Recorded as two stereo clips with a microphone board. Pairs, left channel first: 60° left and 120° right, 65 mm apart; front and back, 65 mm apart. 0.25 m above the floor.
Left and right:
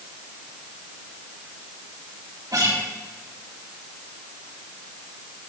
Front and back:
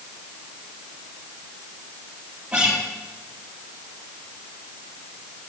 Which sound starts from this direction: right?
A guitar, at 2.5 s.